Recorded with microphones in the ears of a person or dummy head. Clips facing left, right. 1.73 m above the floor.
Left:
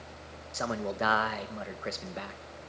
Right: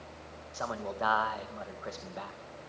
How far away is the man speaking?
About 1.9 m.